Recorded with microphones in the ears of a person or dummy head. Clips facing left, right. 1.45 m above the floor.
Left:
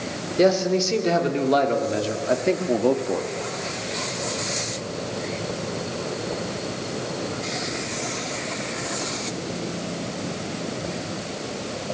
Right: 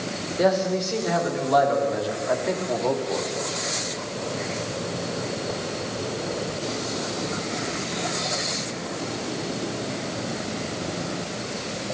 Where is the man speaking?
40° left (ahead or behind), 4 m.